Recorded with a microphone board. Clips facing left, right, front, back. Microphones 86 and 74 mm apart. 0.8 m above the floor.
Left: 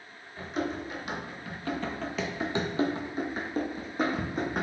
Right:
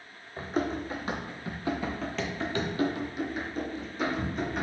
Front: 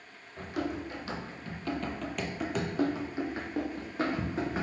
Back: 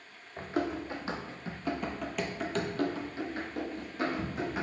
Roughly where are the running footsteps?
Behind right.